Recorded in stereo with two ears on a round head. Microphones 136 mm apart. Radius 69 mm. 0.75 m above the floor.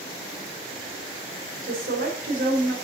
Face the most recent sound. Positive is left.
turn(degrees=-70)  # may be behind; listen again after turning